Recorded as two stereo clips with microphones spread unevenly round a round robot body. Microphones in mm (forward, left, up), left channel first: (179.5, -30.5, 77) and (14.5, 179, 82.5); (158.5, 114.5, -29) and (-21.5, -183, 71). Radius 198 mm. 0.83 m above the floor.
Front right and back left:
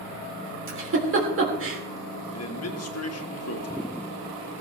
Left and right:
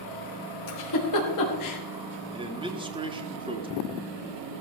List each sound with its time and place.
0.7 s a giggle: 90° left, 3 m
2.3 s a man speaking: 40° right, 2 m